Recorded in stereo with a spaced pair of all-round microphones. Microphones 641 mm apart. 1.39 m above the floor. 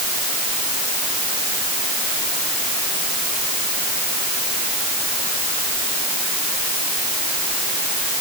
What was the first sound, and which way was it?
Only background noise.